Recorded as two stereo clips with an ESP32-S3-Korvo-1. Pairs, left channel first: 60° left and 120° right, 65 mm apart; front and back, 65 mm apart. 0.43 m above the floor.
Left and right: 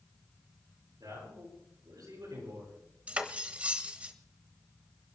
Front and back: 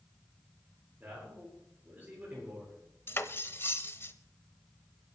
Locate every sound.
1.0 s a man speaking: 120° right, 9.5 m
3.1 s cutlery clinking: 50° right, 0.9 m